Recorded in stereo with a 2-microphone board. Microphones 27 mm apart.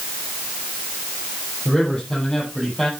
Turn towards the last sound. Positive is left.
turn(degrees=15)  # may be behind; listen again after turning